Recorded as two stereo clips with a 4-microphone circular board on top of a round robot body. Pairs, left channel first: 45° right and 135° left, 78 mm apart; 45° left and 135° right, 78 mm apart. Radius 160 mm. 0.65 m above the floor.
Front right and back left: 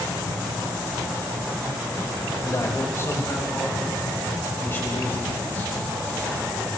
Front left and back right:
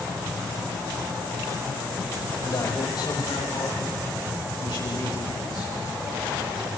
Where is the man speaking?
10° left, 4 m; by 6.0 s 20° left, 9 m.